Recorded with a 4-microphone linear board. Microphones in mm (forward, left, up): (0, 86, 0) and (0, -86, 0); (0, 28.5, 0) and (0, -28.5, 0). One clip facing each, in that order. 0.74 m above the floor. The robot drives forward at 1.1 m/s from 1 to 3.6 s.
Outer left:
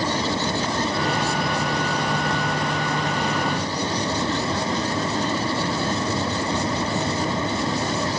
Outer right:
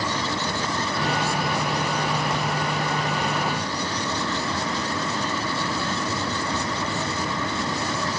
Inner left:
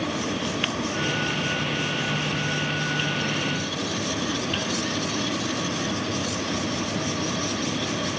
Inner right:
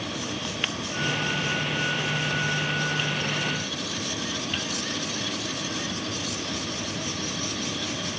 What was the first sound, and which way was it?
Only background noise.